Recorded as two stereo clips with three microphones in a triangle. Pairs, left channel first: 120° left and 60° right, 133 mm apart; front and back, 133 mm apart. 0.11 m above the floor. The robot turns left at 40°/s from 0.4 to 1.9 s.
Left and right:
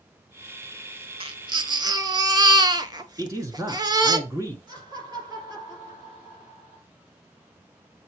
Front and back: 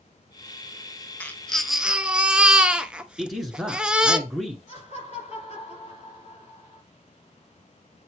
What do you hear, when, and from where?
1.2 s a baby crying: 70° right, 0.6 m; by 4.2 s 100° right, 0.6 m
3.2 s a man speaking: 90° right, 1.1 m
4.7 s laughter: 5° right, 3 m